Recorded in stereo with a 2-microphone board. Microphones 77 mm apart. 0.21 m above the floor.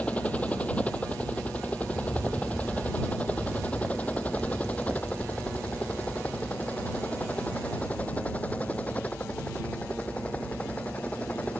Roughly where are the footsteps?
Centre.